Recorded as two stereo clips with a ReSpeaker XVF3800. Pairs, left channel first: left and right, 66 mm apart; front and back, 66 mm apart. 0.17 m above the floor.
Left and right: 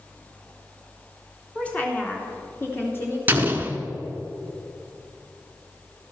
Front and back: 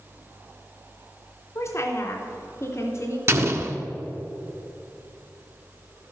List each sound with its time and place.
1.6 s a woman speaking: 20° left, 1.9 m; by 3.2 s 40° left, 3 m
3.3 s an explosion: 145° right, 1.0 m